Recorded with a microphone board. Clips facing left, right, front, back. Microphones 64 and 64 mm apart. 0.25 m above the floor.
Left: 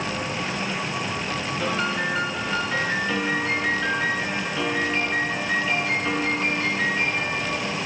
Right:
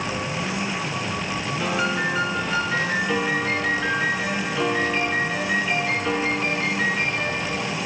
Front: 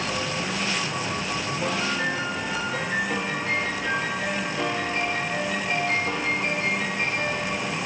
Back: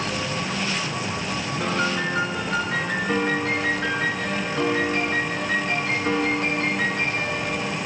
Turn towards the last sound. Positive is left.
turn(degrees=-175)